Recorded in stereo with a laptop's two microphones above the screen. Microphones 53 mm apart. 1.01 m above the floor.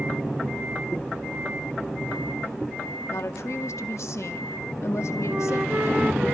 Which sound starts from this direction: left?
A woman speaking, at 3.1 s.